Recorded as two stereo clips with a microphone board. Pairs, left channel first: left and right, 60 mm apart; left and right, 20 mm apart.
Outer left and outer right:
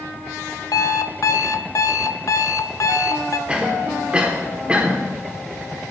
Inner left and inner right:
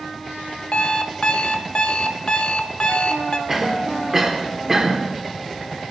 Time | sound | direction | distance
0.7 | an alarm clock | 60° left (ahead or behind) | 0.5 m
3.5 | a cough | 20° right (ahead or behind) | 1.2 m